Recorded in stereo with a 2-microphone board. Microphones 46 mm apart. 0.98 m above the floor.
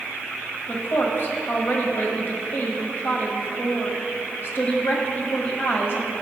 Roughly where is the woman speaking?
Left.